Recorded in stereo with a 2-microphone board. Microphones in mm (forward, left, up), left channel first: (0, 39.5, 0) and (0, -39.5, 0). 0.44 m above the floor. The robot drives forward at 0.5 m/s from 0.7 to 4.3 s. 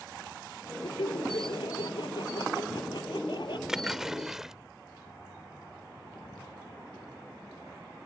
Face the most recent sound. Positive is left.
turn(degrees=-5)  # may be behind; listen again after turning